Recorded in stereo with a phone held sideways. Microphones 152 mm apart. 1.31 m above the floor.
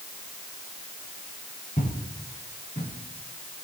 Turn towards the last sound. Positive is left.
turn(degrees=55)  # may be behind; listen again after turning